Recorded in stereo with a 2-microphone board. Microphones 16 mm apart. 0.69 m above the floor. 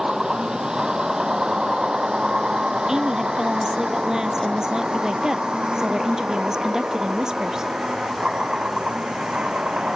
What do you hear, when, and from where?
0.0 s a vehicle: 50° right (ahead or behind); by 10.0 s 80° right
2.9 s a woman speaking: 40° right (ahead or behind)